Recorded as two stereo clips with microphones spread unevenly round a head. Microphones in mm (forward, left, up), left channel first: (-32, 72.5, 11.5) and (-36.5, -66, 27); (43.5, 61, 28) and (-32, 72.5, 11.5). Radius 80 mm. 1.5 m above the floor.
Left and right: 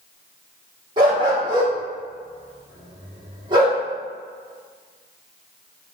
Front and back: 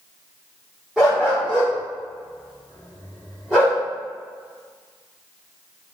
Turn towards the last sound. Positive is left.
turn(degrees=-90)